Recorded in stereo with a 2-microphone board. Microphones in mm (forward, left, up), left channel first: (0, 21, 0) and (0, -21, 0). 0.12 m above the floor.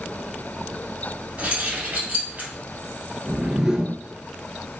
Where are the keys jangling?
35° right (ahead or behind), 1.9 m.